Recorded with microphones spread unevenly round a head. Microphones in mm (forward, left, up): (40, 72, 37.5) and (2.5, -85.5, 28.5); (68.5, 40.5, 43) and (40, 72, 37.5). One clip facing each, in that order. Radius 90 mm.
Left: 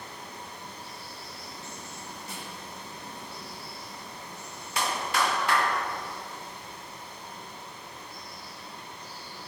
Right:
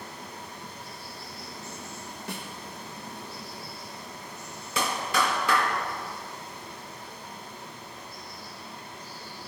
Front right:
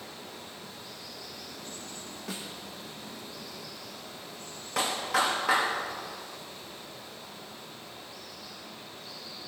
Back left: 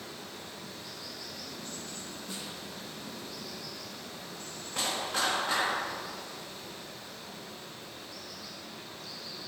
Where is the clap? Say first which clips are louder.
Right 1 dB, front right 4 dB; 100° right, 1.7 m.